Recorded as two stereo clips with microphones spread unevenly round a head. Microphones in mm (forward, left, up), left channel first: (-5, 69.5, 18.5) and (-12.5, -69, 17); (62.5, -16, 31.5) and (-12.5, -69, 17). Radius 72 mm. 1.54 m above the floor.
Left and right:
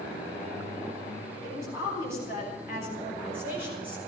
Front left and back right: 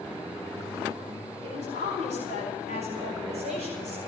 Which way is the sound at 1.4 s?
160° right.